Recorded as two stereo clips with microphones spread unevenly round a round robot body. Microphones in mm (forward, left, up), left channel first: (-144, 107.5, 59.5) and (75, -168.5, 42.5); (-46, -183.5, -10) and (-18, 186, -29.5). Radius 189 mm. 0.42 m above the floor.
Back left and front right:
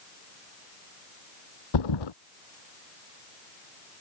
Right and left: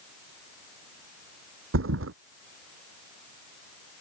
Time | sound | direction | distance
1.7 | a thud | 145° left | ?